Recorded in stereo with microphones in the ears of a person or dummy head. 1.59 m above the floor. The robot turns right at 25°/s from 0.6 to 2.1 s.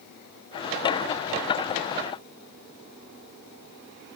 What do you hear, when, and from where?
Only background noise.